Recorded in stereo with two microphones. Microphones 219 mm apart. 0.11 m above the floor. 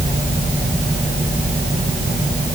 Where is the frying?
I don't hear frying.